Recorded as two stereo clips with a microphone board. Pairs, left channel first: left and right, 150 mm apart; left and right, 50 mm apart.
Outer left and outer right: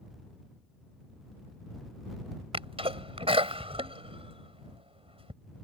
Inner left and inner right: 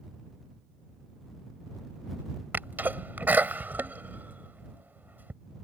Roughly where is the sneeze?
Right.